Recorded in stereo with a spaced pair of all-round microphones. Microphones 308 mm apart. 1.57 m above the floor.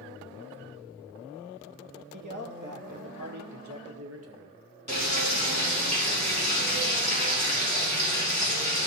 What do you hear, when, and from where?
2.1 s a man speaking: 75° right (ahead or behind), 1.9 m; by 4.6 s 40° right (ahead or behind), 1.4 m
4.9 s frying: 25° right (ahead or behind), 5 m